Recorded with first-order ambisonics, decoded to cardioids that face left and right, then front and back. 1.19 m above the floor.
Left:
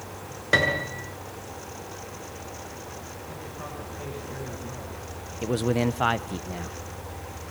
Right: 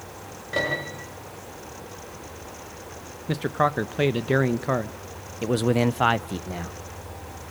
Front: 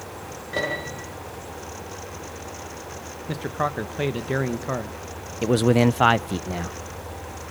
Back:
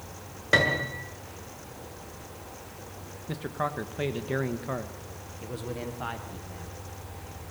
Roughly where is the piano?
Behind left.